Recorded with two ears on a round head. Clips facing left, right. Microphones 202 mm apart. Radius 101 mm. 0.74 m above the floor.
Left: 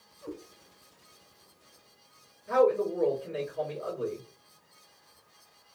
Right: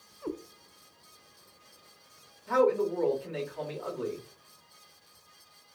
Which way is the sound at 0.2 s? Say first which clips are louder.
Right 5 dB; 70° right (ahead or behind).